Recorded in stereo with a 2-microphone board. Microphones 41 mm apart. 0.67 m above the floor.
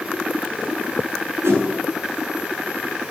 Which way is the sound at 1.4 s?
85° right.